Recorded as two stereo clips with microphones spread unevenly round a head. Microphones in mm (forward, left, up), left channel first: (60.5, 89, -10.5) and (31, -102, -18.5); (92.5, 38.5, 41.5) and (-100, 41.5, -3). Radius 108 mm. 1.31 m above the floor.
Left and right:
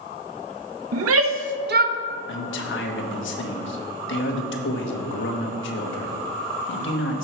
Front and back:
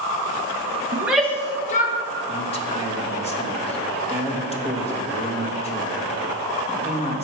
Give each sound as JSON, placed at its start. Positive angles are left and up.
{"t": 0.9, "sound": "a shout", "azimuth_deg": -100, "distance_m": 1.1}
{"t": 2.3, "sound": "a man speaking", "azimuth_deg": 60, "distance_m": 1.6}